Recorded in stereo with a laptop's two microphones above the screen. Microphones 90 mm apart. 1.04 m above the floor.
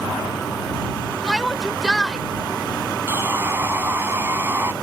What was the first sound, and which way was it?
A shout, 5° left (ahead or behind).